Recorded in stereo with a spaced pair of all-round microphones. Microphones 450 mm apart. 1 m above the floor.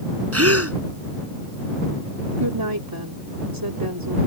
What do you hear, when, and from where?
0.3 s a gasp: 35° right (ahead or behind)
2.4 s a woman speaking: 55° right (ahead or behind)